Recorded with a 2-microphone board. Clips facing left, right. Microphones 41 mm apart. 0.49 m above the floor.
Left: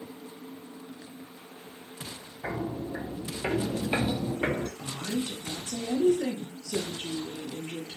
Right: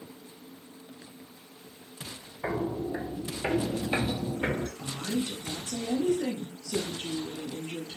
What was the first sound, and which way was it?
Footsteps, 45° right (ahead or behind).